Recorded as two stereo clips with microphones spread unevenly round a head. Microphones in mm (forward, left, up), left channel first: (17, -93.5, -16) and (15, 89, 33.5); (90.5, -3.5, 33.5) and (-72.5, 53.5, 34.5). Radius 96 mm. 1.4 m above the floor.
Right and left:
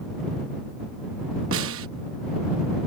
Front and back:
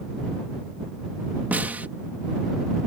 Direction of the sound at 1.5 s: 80° left.